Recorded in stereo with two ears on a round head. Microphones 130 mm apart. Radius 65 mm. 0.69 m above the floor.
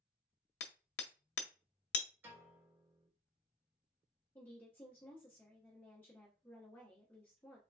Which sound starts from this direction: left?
Hammering, at 0.6 s.